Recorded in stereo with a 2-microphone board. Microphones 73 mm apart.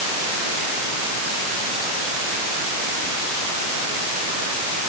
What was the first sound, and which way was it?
Only background noise.